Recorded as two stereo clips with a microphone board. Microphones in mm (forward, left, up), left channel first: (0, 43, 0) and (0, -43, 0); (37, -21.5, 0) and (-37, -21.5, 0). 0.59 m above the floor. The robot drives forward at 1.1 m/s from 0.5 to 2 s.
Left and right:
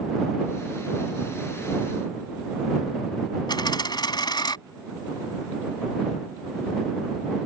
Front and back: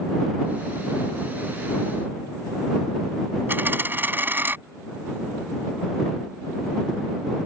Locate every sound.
3.5 s a dropped coin: 120° left